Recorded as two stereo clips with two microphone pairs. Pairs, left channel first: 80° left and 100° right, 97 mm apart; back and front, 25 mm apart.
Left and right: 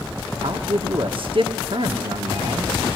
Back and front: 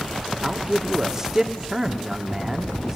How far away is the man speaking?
About 1.6 m.